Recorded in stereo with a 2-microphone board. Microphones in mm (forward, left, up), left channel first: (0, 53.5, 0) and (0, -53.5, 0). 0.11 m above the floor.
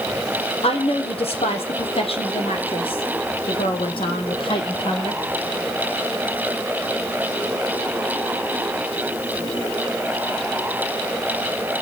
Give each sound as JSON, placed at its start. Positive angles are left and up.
{"t": 0.6, "sound": "a woman speaking", "side_deg": 65, "distance_m": 4.5}